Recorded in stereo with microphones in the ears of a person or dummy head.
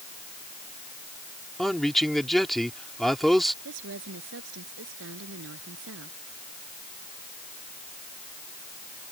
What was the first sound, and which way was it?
A man speaking, 5° right (ahead or behind).